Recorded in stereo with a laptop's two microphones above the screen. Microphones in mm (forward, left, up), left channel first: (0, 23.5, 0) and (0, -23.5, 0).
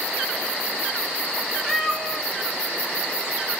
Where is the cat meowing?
10° right (ahead or behind), 2 m.